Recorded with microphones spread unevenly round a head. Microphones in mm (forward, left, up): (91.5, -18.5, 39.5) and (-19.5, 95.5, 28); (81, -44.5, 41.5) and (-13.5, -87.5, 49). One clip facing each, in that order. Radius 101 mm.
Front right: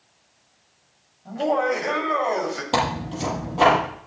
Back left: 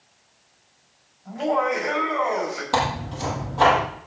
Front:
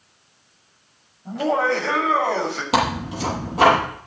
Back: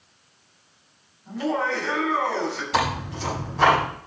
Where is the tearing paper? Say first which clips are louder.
Even, front 5 dB; 20° left, 9 m.